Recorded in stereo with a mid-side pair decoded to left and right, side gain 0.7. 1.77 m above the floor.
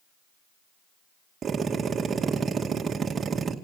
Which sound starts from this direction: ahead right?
A drill, at 1.4 s.